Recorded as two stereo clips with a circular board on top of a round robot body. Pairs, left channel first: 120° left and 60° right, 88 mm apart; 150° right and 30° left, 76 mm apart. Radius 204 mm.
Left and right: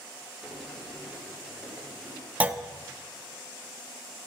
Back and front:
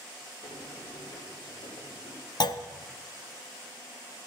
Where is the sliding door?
150° right, 2.5 m.